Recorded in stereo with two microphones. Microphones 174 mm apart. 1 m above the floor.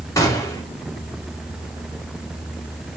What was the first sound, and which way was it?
A gunshot, 20° left (ahead or behind).